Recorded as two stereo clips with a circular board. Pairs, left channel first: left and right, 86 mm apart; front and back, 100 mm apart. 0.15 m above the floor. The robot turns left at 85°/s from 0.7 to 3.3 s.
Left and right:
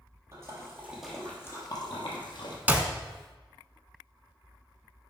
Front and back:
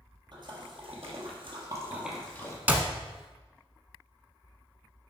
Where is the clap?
130° right, 0.8 m; by 2.9 s 150° right, 0.8 m.